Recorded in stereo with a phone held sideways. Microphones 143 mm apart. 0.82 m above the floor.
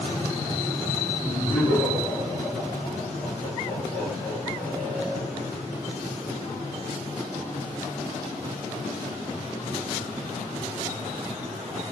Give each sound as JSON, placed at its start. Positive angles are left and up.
{"t": 1.2, "sound": "laughter", "side_deg": 55, "distance_m": 1.8}